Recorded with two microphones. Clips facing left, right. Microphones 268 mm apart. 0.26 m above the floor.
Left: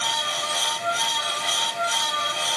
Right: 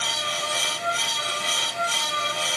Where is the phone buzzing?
No phone buzzing in this recording.